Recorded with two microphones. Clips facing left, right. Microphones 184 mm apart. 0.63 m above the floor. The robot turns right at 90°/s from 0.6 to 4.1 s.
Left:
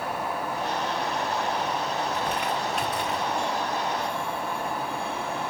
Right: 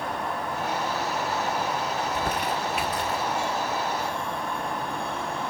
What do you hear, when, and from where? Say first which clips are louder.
2.0 s crumpling: even; 60° right (ahead or behind), 1.9 m; by 3.3 s 30° left (ahead or behind), 1.9 m